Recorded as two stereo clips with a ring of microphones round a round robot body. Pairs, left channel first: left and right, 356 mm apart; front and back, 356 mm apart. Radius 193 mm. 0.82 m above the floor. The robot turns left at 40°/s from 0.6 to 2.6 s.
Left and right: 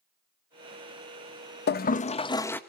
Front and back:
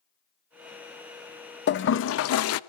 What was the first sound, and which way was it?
A toilet flushing, 45° left.